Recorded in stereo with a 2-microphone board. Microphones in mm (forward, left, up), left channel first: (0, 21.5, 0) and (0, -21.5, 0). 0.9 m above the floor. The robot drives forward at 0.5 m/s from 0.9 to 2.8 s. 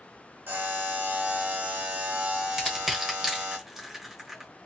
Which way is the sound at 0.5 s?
50° right (ahead or behind).